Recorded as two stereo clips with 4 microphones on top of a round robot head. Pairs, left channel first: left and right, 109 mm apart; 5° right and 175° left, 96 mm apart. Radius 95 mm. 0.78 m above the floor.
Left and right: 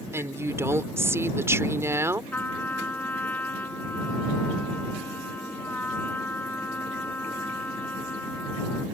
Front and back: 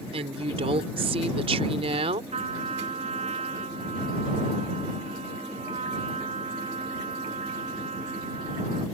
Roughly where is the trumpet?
Behind.